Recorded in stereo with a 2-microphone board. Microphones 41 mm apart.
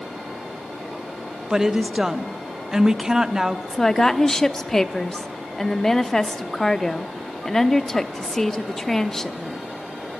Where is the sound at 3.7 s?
15° left (ahead or behind), 0.7 m.